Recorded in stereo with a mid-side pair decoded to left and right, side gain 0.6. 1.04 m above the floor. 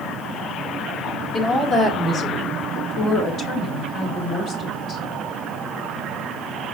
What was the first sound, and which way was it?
A woman speaking, 35° left.